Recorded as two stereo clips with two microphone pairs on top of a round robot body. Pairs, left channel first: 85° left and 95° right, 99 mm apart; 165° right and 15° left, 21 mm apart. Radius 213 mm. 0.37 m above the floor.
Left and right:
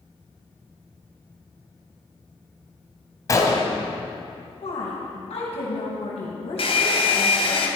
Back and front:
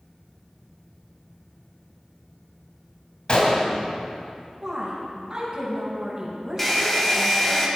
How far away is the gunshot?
About 1.8 m.